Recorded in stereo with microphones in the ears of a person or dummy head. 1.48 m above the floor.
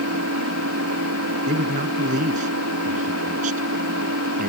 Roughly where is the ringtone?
I don't hear a ringtone.